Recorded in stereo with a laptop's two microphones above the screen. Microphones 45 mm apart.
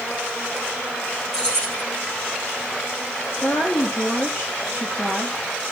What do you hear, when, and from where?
1.3 s keys jangling: 15° left (ahead or behind), 4 m
3.4 s a woman speaking: 65° left (ahead or behind), 2 m